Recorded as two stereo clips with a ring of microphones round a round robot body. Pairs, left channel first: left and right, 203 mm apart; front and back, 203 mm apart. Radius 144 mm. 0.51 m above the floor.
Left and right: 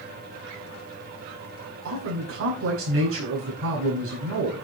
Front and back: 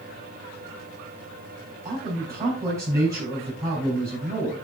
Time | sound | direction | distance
1.9 | a man speaking | 100° right | 4.5 m